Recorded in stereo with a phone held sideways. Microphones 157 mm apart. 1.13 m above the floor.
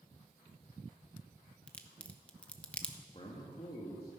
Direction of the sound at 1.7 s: 5° left (ahead or behind).